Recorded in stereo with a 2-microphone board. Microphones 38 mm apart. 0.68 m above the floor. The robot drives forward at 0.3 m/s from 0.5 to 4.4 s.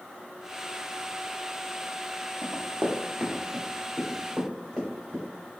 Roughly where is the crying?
I don't hear crying.